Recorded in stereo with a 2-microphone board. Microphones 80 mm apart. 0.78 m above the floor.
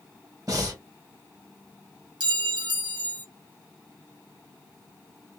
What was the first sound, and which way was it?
Breathing, 50° right (ahead or behind).